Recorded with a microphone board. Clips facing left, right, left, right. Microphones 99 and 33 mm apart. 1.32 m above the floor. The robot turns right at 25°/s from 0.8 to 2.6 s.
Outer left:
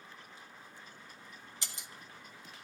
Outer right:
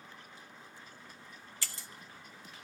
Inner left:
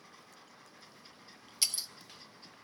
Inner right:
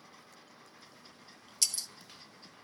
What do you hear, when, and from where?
1.6 s breaking glass: 20° left (ahead or behind), 0.5 m